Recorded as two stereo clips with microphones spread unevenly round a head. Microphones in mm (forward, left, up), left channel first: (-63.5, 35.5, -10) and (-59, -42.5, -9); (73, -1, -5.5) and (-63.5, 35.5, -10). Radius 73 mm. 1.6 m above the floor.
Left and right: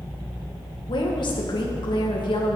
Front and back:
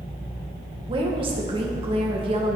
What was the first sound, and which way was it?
A woman speaking, 110° left.